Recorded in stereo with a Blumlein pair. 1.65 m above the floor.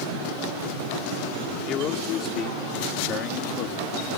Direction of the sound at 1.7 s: 30° left.